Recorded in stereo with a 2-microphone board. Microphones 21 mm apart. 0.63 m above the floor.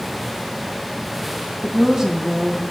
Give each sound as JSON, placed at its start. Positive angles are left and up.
{"t": 1.6, "sound": "a woman speaking", "side_deg": -25, "distance_m": 1.1}